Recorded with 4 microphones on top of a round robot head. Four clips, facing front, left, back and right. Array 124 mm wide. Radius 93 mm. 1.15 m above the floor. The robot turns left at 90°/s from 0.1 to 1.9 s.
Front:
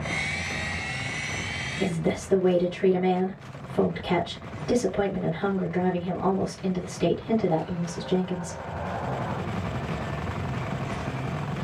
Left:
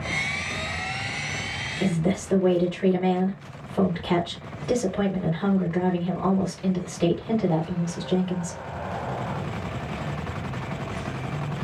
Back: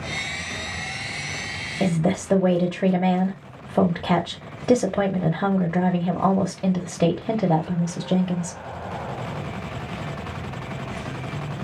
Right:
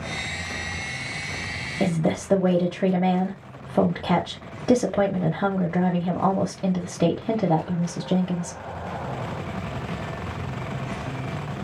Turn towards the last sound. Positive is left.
turn(degrees=-140)